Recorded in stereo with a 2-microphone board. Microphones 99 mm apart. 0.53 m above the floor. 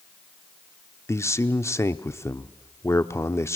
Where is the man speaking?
30° left (ahead or behind), 0.9 m.